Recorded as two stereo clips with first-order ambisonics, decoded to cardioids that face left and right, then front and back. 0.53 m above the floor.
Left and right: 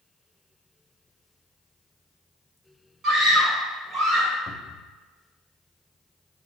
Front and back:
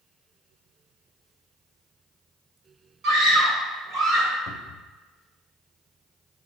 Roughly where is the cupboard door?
Ahead.